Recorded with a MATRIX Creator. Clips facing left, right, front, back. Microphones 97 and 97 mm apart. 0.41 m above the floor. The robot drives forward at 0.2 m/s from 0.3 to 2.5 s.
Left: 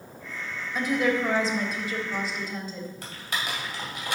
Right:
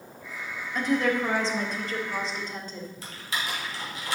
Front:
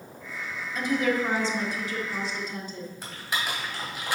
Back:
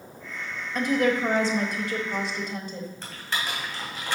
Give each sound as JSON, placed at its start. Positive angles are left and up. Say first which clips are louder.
{"t": 0.8, "sound": "a woman speaking", "louder": "even, back 2 dB", "azimuth_deg": 170, "distance_m": 1.3}
{"t": 3.0, "sound": "typing on a keyboard", "louder": "even, front 1 dB", "azimuth_deg": 80, "distance_m": 2.5}